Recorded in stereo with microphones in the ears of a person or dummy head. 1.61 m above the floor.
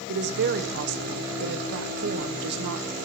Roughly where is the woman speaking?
Right.